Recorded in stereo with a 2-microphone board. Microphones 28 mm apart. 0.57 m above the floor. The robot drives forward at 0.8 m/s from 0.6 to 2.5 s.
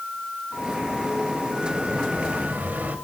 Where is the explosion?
60° right (ahead or behind), 2.5 m; by 3.0 s 70° right (ahead or behind), 2.5 m.